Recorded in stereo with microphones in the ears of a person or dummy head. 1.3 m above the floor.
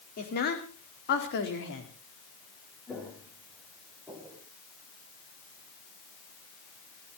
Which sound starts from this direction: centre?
Footsteps, at 2.9 s.